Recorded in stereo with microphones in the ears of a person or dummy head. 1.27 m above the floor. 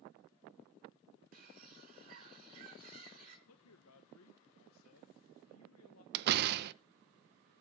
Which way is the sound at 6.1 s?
60° right (ahead or behind).